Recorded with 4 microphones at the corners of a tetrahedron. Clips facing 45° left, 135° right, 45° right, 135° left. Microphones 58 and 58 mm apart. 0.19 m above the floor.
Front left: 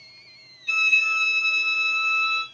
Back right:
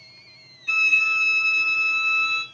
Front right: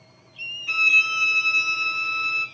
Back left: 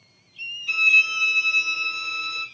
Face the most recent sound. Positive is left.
turn(degrees=-95)